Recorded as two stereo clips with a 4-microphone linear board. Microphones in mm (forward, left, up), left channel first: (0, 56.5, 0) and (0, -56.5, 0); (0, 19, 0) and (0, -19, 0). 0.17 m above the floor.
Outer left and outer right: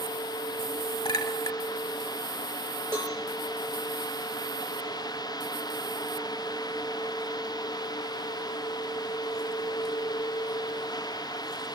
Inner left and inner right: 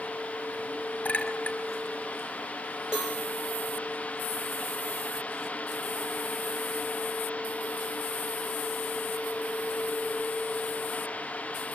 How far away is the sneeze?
No sneeze in this recording.